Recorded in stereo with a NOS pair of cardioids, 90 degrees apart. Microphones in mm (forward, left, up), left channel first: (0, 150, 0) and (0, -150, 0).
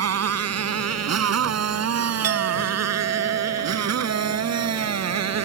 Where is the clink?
60° right.